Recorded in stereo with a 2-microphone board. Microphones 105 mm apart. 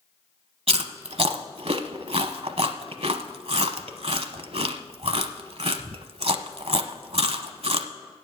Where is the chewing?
70° right (ahead or behind), 0.8 m.